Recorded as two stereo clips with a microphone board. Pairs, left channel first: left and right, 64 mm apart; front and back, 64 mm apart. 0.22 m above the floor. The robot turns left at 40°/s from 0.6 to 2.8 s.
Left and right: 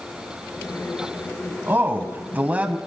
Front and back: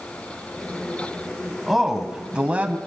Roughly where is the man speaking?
Right.